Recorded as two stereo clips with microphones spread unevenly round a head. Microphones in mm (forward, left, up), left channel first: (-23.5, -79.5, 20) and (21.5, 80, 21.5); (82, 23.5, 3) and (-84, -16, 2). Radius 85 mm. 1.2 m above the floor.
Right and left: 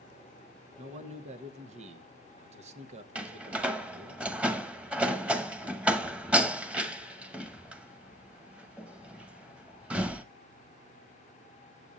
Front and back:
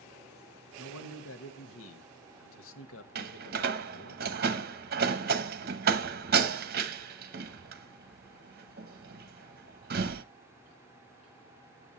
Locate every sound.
0.8 s a man speaking: 20° left, 1.3 m
3.1 s a door slam: 160° left, 1.0 m